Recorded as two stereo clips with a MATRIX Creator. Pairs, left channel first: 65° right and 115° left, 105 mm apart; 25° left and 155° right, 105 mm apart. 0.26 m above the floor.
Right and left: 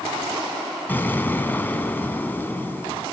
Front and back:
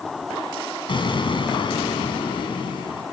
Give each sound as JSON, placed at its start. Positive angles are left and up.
{"t": 0.9, "sound": "an explosion", "azimuth_deg": 0, "distance_m": 2.5}